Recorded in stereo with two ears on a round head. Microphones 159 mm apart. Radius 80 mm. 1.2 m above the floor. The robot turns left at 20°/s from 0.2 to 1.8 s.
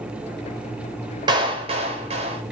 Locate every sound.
1.3 s a clap: 25° right (ahead or behind), 4 m; by 2.4 s 35° right (ahead or behind), 4 m